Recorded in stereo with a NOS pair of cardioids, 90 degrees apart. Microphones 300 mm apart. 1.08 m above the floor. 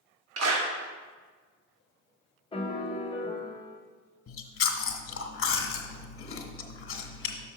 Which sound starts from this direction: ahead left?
Chewing, at 4.3 s.